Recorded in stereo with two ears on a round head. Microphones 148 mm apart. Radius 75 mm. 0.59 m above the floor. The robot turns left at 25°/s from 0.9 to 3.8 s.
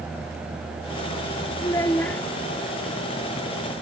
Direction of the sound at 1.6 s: 20° left (ahead or behind).